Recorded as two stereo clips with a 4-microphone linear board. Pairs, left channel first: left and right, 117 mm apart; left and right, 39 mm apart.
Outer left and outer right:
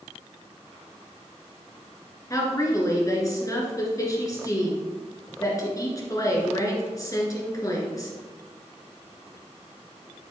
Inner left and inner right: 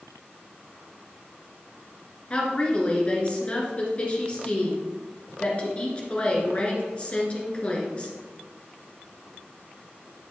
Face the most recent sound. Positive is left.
turn(degrees=30)  # may be behind; listen again after turning